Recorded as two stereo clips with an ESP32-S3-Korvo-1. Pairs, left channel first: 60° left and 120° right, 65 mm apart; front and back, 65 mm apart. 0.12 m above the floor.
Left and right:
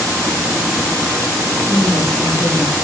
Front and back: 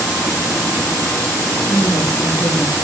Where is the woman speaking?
35° left, 7 m; by 2.7 s 30° left, 5.5 m.